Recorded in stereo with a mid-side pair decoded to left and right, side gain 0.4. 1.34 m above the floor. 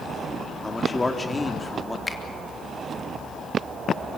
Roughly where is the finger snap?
Ahead left.